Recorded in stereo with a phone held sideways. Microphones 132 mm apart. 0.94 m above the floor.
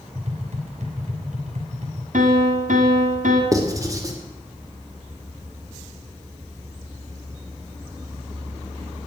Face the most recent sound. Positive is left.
turn(degrees=-25)  # may be behind; listen again after turning